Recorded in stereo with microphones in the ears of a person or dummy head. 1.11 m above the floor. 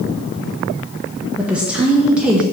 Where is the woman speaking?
10° right (ahead or behind), 0.8 m.